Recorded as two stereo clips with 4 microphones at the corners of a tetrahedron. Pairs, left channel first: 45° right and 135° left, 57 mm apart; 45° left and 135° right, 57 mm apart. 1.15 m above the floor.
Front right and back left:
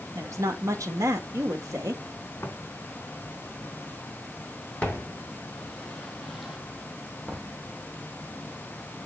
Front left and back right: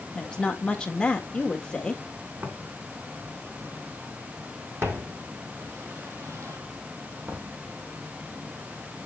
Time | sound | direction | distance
0.1 | a woman speaking | 115° left | 1.7 m
2.4 | footsteps | 95° right | 3 m